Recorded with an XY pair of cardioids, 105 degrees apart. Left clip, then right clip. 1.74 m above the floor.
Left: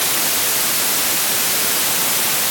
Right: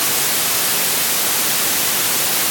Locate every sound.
Only background noise.